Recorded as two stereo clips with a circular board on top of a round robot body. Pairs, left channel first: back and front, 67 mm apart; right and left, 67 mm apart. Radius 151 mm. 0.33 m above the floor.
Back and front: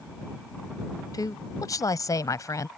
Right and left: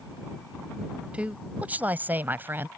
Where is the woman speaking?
160° left; by 2.7 s 145° left.